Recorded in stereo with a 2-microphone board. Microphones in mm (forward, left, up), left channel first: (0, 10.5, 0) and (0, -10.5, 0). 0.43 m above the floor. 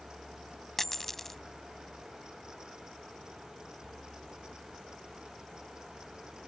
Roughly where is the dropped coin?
Centre.